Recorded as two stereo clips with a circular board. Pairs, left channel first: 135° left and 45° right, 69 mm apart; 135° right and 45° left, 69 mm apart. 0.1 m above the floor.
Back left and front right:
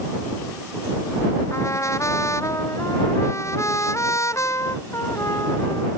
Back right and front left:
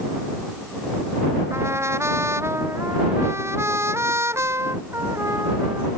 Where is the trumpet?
95° left.